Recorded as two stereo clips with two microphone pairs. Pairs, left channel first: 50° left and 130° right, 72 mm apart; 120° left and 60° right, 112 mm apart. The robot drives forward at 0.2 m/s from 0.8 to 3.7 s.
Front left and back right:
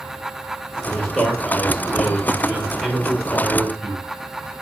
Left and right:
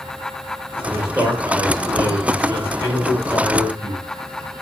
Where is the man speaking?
40° right, 2.0 m; by 4.0 s 65° right, 1.8 m.